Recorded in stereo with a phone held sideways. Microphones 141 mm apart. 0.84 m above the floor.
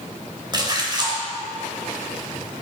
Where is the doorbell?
No doorbell in this recording.